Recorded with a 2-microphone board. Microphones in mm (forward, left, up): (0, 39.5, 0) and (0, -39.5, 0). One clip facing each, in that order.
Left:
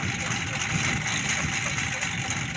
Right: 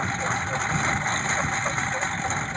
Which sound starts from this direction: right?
A lawn mower, at 0.0 s.